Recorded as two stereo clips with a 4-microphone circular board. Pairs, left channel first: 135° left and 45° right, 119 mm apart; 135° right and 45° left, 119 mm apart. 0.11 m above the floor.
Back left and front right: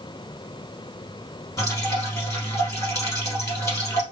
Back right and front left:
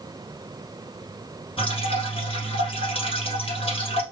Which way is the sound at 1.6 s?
165° right.